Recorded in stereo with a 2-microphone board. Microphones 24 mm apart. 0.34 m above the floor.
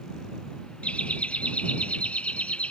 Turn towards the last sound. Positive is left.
turn(degrees=70)  # may be behind; listen again after turning